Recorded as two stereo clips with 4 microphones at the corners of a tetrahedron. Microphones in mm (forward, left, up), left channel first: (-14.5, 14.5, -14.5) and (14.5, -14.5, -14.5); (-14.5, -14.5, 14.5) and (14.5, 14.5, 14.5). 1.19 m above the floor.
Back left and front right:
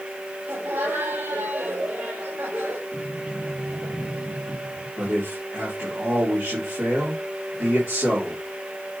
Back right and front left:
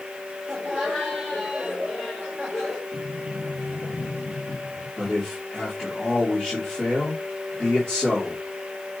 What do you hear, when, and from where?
0.5 s laughter: 45° right, 3 m
2.9 s a sliding door: 115° right, 2.5 m
5.0 s a man speaking: 60° right, 4 m